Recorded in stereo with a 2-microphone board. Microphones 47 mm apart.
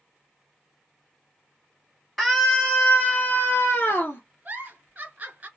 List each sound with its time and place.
2.2 s a scream: centre (ahead or behind), 1.8 m; by 4.2 s 40° left (ahead or behind), 2 m
4.5 s a giggle: 30° right (ahead or behind), 1.8 m